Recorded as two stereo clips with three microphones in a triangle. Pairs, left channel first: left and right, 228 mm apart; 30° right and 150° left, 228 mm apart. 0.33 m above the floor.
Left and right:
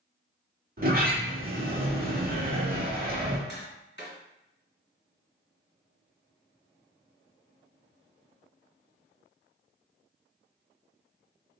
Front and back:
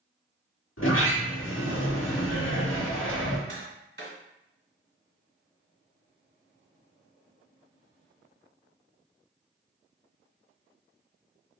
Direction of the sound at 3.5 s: 120° left.